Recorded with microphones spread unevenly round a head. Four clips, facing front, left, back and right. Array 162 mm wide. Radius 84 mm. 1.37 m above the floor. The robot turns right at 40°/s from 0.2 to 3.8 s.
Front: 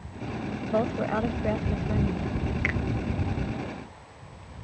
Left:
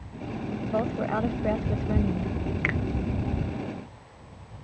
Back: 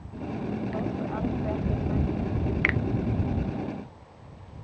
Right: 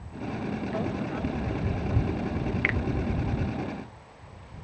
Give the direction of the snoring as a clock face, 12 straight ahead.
I don't hear snoring.